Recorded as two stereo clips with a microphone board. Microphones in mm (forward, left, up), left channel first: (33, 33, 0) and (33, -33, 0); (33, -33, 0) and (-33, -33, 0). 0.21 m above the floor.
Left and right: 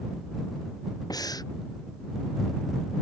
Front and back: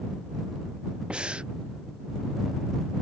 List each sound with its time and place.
1.1 s breathing: 105° left